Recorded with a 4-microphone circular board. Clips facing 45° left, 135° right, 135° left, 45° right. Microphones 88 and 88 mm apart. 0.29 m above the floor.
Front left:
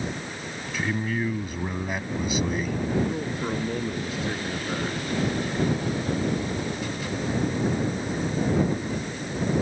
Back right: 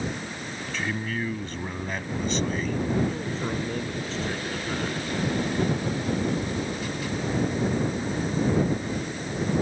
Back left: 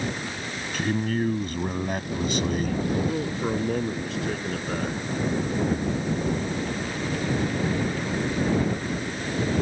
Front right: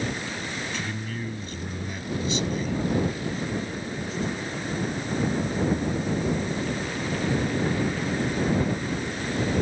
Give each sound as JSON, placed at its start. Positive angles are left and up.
{"t": 0.7, "sound": "a man speaking", "azimuth_deg": 125}
{"t": 3.1, "sound": "a man speaking", "azimuth_deg": 125}